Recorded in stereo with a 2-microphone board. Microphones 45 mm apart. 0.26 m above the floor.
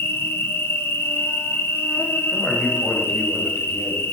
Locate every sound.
0.0 s an insect: 70° left (ahead or behind), 1.0 m
2.3 s a man speaking: 20° left (ahead or behind), 1.5 m